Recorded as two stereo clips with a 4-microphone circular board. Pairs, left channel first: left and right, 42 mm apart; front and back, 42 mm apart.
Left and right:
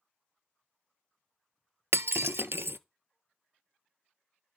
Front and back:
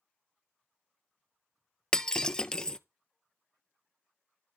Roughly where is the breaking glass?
Right.